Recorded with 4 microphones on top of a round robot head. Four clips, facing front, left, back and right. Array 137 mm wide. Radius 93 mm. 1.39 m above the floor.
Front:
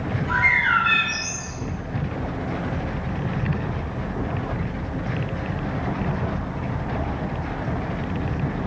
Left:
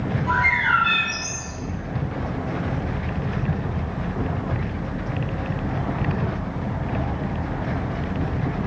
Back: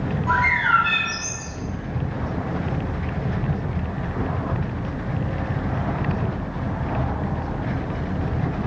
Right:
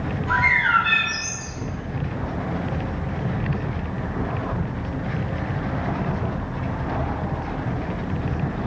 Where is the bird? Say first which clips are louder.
Right 1 dB, back 2 dB; 150° left, 3.5 m.